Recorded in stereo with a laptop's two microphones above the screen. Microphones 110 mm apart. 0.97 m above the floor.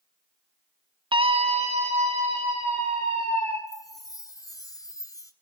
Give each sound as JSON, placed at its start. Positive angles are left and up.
{"t": 1.1, "sound": "a scream", "side_deg": -45, "distance_m": 0.8}
{"t": 3.7, "sound": "a chime", "side_deg": 30, "distance_m": 0.6}